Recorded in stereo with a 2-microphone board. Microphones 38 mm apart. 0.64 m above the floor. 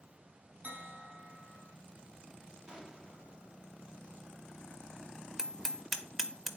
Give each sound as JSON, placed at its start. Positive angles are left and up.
{"t": 0.6, "sound": "a bell", "side_deg": -40, "distance_m": 1.5}
{"t": 2.7, "sound": "an explosion", "side_deg": -20, "distance_m": 1.1}
{"t": 5.4, "sound": "hammering", "side_deg": -10, "distance_m": 1.1}